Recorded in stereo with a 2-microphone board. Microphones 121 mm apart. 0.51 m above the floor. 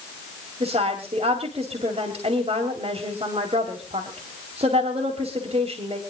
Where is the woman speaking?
55° right (ahead or behind), 2.5 m.